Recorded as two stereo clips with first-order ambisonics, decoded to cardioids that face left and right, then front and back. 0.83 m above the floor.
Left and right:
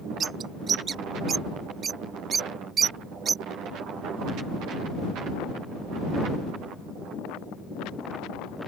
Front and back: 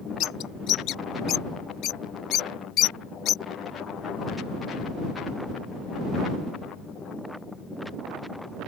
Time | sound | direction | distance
0.2 | a bird | 30° right | ?